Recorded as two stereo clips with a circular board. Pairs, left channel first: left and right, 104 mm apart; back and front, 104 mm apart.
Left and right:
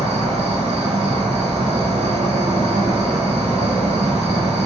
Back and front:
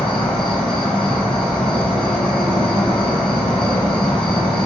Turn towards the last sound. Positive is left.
turn(degrees=-95)